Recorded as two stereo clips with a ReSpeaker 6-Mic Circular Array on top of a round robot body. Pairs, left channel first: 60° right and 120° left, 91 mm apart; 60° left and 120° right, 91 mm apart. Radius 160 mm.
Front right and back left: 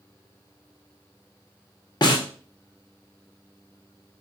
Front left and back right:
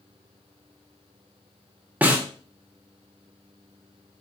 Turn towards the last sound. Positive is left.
turn(degrees=-50)